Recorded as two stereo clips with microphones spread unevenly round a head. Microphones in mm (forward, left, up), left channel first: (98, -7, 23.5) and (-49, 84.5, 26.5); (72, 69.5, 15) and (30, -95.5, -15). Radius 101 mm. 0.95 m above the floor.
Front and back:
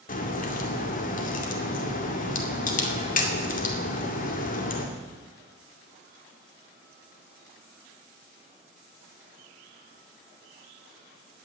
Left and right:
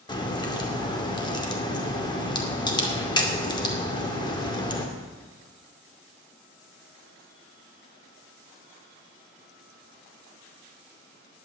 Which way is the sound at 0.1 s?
10° left.